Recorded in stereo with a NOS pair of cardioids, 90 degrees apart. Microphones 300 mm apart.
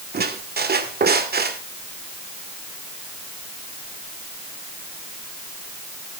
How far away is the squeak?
About 2.5 m.